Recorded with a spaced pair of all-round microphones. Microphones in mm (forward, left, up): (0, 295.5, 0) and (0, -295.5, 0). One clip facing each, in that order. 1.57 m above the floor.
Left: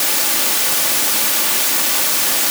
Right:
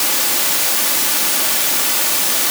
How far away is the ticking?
No ticking in this recording.